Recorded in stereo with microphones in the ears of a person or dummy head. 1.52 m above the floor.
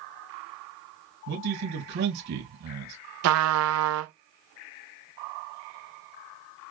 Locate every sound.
1.3 s a man speaking: 60° right (ahead or behind), 2.5 m
3.2 s a trumpet: 85° right, 0.8 m